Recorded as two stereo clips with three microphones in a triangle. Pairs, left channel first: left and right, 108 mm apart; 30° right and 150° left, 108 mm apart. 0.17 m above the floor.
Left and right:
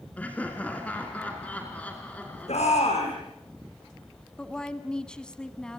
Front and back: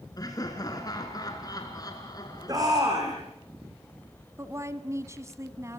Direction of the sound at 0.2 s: 15° left.